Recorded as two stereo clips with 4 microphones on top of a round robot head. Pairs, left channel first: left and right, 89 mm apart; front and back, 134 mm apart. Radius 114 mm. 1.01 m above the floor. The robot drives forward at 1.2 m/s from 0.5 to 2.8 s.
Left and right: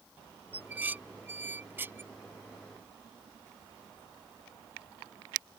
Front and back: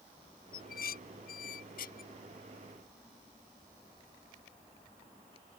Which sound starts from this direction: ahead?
Dishes clattering, at 0.5 s.